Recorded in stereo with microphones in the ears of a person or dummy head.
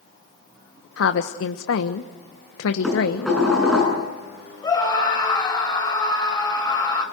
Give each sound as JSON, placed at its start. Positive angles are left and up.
{"t": 1.0, "sound": "a woman speaking", "side_deg": 80, "distance_m": 1.2}
{"t": 2.8, "sound": "dishes clattering", "side_deg": 0, "distance_m": 8.5}
{"t": 4.6, "sound": "a scream", "side_deg": 20, "distance_m": 6.5}